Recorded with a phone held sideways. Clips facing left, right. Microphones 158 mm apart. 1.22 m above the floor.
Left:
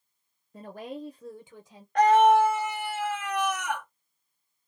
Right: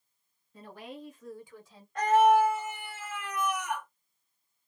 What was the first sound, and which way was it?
A woman speaking, 50° left (ahead or behind).